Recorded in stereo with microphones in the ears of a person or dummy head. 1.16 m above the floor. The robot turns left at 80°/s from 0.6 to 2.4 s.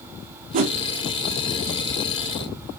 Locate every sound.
0.5 s a whoosh: 35° right (ahead or behind), 0.5 m; by 0.8 s 25° right (ahead or behind), 0.5 m